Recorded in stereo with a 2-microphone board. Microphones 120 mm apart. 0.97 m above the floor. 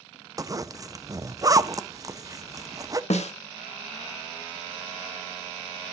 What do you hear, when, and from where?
0.4 s a zipper: 30° right (ahead or behind), 0.6 m
3.1 s a snare drum: 65° left (ahead or behind), 1.3 m